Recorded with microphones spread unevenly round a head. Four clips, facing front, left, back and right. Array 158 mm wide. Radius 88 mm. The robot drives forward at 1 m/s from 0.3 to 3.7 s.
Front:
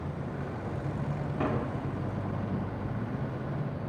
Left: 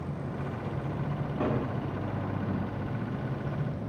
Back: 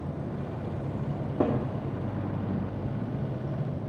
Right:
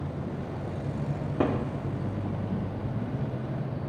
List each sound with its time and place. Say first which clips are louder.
1.1 s a cupboard door: right 3 dB, back 5 dB; 140° right, 3.5 m; by 1.6 s 145° right, 3.5 m